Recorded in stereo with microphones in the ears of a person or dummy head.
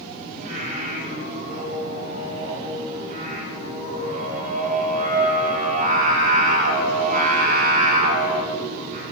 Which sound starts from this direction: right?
Singing, at 0.4 s.